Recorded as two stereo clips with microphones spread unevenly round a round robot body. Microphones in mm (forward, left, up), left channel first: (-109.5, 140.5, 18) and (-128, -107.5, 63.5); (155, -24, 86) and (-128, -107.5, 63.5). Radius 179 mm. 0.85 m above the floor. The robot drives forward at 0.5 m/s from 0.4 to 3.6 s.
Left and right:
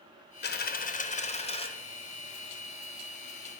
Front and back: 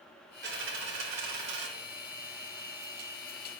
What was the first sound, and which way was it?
A dropped coin, 135° left.